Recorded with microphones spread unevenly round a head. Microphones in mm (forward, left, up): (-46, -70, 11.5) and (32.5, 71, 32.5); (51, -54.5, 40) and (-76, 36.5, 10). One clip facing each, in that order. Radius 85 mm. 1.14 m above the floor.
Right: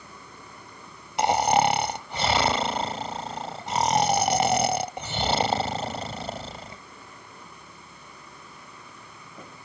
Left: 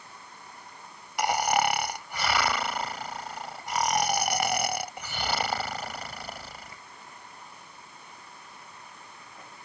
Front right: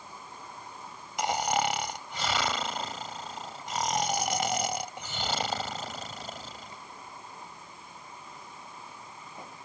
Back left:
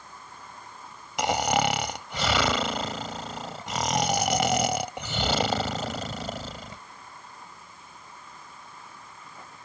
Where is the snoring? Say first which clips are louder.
Right 5 dB, back left 4 dB; 175° left.